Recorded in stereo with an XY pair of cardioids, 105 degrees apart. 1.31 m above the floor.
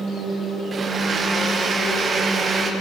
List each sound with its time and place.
0.7 s a blender: 40° right, 1.0 m